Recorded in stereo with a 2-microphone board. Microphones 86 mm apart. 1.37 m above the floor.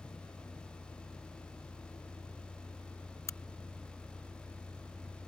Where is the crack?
30° left (ahead or behind).